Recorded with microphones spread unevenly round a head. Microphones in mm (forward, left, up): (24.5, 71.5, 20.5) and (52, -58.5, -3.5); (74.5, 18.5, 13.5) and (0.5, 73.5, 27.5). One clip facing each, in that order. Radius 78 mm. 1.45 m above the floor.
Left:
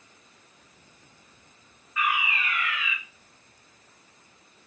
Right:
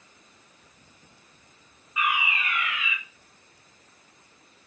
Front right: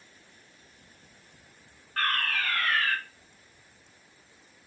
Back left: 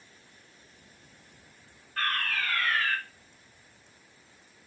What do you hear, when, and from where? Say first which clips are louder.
2.0 s a fire alarm: even, front right 2 dB; 15° right, 2 m